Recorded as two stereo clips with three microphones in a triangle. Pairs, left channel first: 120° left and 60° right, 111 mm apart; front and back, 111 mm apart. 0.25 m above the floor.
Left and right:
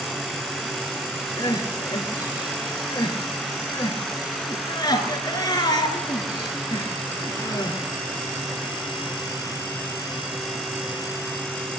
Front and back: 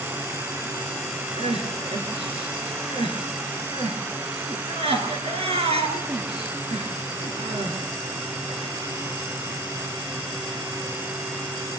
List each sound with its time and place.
1.4 s crying: 170° left, 3 m